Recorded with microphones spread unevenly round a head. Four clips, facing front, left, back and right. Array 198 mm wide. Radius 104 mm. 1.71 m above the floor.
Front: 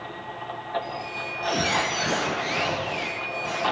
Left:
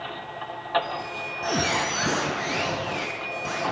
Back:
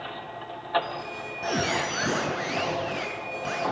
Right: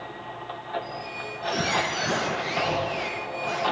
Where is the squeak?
130° left, 7 m.